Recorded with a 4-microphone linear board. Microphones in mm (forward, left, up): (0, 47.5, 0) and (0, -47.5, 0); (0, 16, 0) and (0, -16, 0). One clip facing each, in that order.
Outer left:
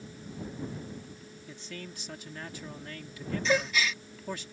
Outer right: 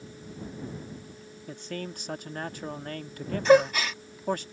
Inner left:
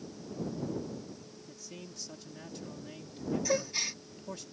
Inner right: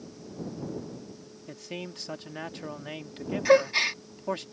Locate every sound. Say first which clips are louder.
1.5 s a man speaking: outer right 8 dB, inner right 12 dB; 50° right (ahead or behind)
3.5 s a gasp: outer right 10 dB, inner right 15 dB; 50° right (ahead or behind)